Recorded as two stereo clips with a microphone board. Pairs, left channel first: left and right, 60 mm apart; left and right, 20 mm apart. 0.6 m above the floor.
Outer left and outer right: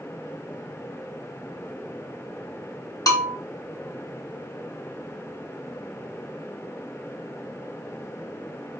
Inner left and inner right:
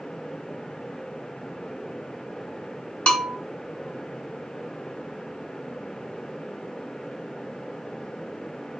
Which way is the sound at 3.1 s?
75° left (ahead or behind).